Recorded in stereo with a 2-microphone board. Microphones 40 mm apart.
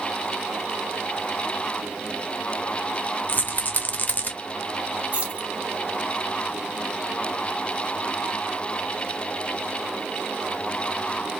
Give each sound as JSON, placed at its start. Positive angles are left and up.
{"t": 3.3, "sound": "a rattle", "side_deg": 40, "distance_m": 0.8}
{"t": 5.1, "sound": "keys jangling", "side_deg": -35, "distance_m": 1.8}